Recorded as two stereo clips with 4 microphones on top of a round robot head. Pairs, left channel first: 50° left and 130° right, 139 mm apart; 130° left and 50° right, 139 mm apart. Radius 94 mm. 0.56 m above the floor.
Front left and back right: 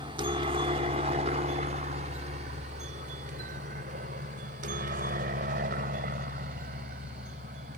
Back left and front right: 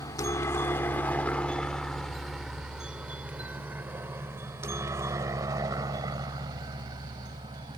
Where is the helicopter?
170° right; by 7.8 s 110° right.